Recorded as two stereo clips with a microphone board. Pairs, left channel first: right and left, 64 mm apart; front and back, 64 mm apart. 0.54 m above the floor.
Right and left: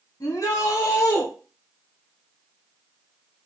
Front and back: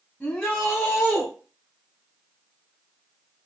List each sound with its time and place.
0.2 s a shout: 75° right, 3 m; by 1.3 s 95° right, 1.8 m